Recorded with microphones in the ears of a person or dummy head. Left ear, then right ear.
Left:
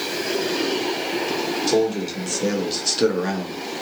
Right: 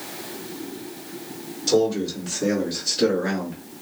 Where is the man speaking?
5° left (ahead or behind), 1.2 m; by 3.6 s 20° left (ahead or behind), 0.8 m.